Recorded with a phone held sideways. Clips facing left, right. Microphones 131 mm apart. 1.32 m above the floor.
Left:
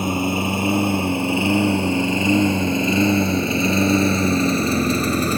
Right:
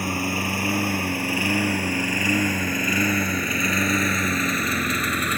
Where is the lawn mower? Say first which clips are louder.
Left 5 dB; 20° left (ahead or behind); by 5.4 s 30° left (ahead or behind).